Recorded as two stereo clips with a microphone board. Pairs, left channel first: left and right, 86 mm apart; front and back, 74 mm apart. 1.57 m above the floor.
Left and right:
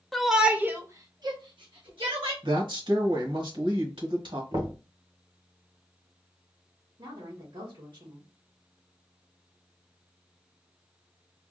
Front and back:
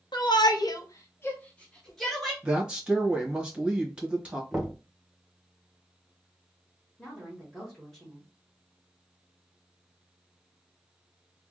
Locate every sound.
0.1 s a shout: straight ahead, 0.8 m; by 2.3 s 90° right, 1.3 m
2.4 s a woman speaking: 105° right, 1.4 m
4.5 s knocking: 90° right, 1.3 m
7.0 s a woman speaking: 80° right, 1.4 m